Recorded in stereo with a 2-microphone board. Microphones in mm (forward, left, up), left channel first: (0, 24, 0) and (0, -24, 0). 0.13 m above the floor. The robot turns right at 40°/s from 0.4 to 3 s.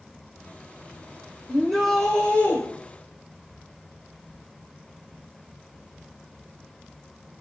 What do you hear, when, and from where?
1.5 s a shout: 5° left, 6.5 m; by 2.6 s 50° left, 6.5 m